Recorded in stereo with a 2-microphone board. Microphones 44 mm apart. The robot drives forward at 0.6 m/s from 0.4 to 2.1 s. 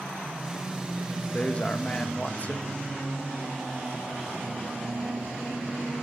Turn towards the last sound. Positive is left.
turn(degrees=35)  # may be behind; listen again after turning